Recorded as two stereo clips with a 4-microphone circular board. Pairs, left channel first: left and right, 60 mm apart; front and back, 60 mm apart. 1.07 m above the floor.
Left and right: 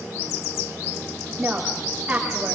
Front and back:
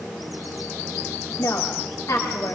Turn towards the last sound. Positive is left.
turn(degrees=-20)